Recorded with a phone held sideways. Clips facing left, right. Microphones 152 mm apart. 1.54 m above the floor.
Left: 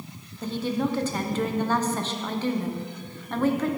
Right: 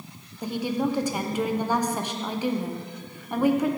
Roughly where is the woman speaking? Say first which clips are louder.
Even; centre.